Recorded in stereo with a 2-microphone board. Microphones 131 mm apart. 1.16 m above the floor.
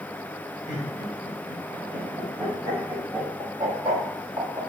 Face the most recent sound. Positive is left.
turn(degrees=-20)  # may be behind; listen again after turning